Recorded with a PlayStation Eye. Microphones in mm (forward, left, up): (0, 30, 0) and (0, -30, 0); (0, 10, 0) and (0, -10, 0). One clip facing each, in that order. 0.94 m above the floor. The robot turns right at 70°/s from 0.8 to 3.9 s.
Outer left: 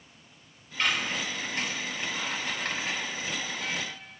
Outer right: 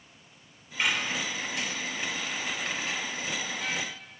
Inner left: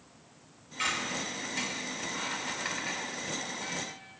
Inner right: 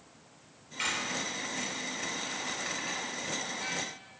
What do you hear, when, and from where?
0.8 s a squeak: 15° right (ahead or behind), 2.5 m; by 3.9 s 20° right (ahead or behind), 2.5 m